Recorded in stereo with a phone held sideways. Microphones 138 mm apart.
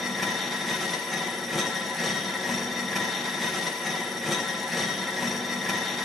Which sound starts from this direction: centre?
A machine running, at 0.0 s.